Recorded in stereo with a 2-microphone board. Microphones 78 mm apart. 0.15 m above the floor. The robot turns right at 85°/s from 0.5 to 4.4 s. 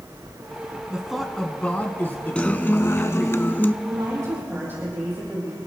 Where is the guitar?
25° left, 0.5 m; by 3.7 s 145° left, 0.5 m.